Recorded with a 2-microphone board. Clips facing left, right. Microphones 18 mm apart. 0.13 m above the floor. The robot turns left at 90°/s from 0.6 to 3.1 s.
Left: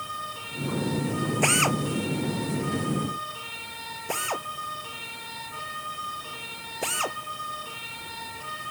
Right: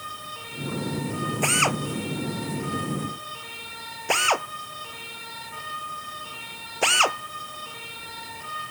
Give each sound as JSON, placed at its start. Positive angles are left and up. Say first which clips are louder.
{"t": 1.4, "sound": "a drill", "louder": "right 1 dB", "side_deg": 10}